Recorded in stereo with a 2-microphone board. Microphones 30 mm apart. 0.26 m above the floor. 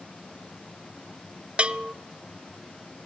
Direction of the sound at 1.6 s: 40° right (ahead or behind).